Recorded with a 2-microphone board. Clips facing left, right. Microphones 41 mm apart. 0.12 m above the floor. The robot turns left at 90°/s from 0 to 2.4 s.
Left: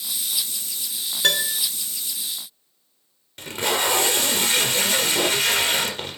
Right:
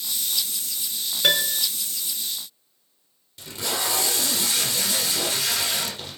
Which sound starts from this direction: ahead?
A piano, at 1.2 s.